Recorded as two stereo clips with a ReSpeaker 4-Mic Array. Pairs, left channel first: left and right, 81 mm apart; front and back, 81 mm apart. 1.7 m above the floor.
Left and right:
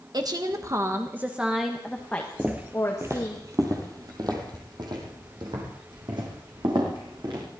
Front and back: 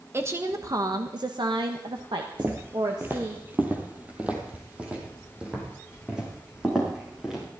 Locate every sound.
0.1 s a woman speaking: 120° right, 1.8 m; by 3.4 s 140° left, 2.5 m
2.4 s footsteps: 150° right, 1.9 m; by 7.4 s 100° right, 6 m